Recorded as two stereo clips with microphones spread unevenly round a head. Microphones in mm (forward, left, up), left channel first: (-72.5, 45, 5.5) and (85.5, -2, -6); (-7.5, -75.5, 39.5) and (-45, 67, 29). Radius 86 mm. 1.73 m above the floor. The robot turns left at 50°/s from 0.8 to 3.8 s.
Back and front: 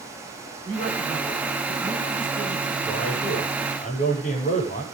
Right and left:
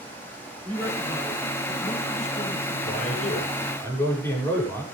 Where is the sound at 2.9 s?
100° right, 7 m; by 4.8 s 150° right, 7 m.